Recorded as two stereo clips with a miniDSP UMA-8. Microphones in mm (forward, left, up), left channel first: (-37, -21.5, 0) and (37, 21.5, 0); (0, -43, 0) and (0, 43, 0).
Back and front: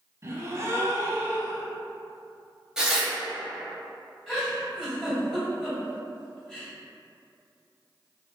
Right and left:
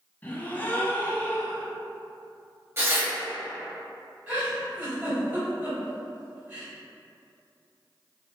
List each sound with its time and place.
0.2 s a gasp: 25° right, 0.5 m
2.8 s tearing paper: 100° left, 1.0 m
4.3 s a giggle: 120° left, 1.6 m